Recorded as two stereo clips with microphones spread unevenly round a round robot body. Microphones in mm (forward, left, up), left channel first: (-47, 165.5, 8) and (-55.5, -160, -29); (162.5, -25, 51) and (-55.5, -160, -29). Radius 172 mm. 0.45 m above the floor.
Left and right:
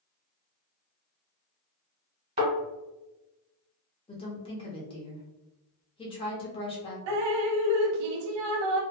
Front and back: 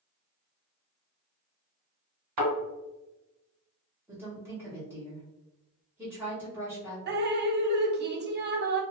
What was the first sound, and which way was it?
A thud, 160° right.